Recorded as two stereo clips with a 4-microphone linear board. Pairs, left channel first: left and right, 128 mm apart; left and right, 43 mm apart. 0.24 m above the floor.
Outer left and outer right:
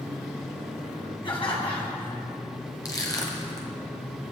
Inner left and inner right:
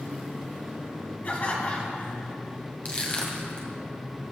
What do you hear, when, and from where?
1.2 s laughter: 40° left (ahead or behind), 2.5 m
2.9 s crushing: 30° left (ahead or behind), 1.7 m